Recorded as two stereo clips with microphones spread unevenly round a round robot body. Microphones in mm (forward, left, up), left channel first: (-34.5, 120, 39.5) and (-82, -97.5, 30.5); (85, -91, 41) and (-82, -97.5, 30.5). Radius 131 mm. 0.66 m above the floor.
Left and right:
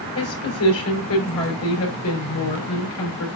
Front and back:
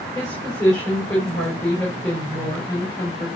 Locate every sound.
0.1 s a woman speaking: 85° left, 4.5 m